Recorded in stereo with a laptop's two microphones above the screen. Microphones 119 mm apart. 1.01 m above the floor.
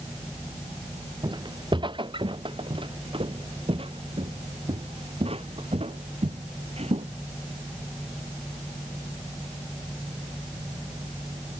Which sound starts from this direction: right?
Footsteps, at 1.2 s.